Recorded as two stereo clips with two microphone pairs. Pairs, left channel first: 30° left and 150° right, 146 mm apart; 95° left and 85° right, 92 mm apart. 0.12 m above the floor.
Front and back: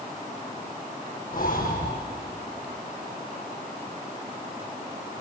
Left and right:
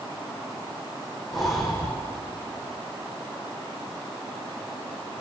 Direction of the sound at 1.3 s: 5° left.